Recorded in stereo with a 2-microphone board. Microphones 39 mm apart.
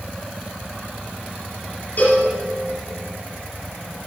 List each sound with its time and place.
2.0 s a cowbell: 45° left (ahead or behind), 2.5 m